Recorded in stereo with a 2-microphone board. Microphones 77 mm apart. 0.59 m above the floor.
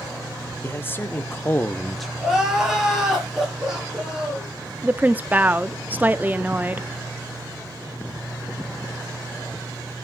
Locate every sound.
0.6 s a man speaking: 30° left (ahead or behind), 1.6 m; by 2.1 s 5° right (ahead or behind), 0.7 m
2.2 s crying: 5° right (ahead or behind), 5.5 m
4.8 s a woman speaking: 25° right (ahead or behind), 0.6 m